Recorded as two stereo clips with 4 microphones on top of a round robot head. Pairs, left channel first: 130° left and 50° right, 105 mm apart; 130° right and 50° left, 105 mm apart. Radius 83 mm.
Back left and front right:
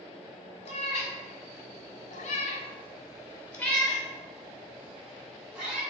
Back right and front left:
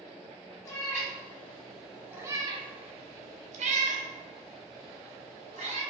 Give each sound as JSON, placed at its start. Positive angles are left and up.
{"t": 0.7, "sound": "a cat meowing", "azimuth_deg": 165, "distance_m": 1.3}